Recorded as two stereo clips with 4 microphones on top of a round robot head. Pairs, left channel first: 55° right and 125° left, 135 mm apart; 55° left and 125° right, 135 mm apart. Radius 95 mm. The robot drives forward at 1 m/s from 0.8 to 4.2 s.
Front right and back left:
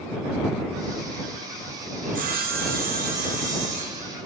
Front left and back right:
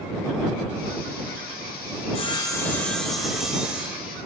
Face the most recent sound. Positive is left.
turn(degrees=160)